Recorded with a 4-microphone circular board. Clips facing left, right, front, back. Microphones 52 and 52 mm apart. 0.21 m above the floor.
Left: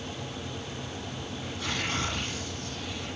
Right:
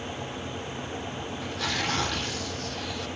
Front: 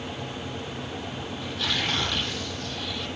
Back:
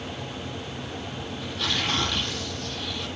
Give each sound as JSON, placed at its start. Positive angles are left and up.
{"t": 1.4, "sound": "tearing paper", "azimuth_deg": -90, "distance_m": 9.0}